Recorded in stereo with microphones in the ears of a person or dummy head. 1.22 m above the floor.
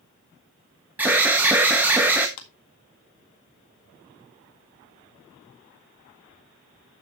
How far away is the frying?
I don't hear frying.